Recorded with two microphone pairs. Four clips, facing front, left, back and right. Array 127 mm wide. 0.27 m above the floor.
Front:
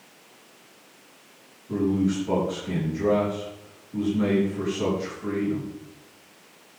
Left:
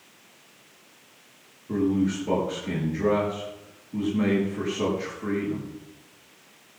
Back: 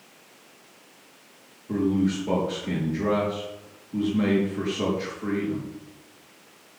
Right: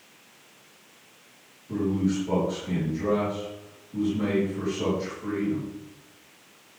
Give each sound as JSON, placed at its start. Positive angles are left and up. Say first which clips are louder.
{"t": 1.7, "sound": "a man speaking", "louder": "left 2 dB, even", "azimuth_deg": 150, "distance_m": 6.0}